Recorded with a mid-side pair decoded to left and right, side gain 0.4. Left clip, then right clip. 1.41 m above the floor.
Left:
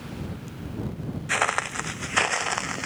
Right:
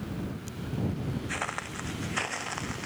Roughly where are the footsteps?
Ahead left.